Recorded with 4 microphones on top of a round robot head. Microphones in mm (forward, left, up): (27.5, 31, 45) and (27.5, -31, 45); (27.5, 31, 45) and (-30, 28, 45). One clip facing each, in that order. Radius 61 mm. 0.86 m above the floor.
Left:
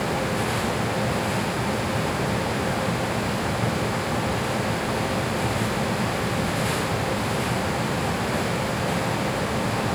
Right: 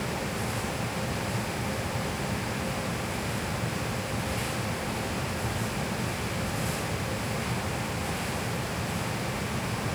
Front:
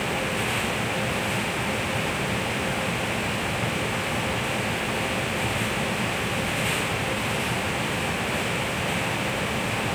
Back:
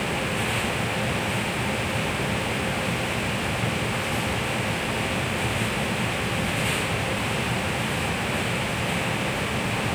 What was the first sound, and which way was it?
Only background noise.